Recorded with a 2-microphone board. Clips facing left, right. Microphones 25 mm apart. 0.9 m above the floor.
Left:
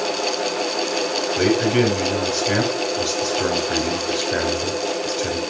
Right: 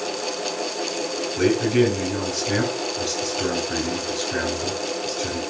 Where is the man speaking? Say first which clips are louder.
Even; 45° left (ahead or behind), 4 m.